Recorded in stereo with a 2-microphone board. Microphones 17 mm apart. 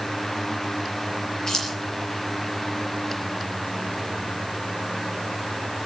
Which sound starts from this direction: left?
Keys jangling, at 1.5 s.